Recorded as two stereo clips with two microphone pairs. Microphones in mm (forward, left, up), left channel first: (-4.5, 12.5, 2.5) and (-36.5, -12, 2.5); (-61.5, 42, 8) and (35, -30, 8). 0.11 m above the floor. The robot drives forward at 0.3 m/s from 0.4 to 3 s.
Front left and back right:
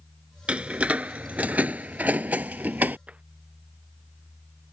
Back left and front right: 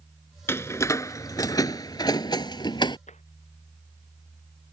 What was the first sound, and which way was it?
A door slam, 165° right.